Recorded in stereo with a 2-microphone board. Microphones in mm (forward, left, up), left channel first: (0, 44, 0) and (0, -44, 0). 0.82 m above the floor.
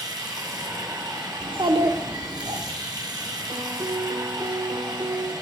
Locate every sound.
0.0 s running water: 50° right (ahead or behind), 2.5 m
1.4 s a child speaking: 70° right (ahead or behind), 1.4 m
3.5 s a piano: 60° right (ahead or behind), 0.8 m